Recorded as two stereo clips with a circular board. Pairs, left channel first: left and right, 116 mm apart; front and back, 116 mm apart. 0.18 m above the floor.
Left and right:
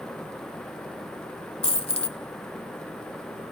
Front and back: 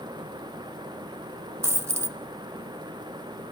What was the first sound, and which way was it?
A dropped coin, 115° left.